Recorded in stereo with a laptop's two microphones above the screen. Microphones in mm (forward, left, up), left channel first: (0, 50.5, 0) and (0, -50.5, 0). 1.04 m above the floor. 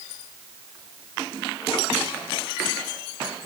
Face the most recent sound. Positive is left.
No sound to turn to.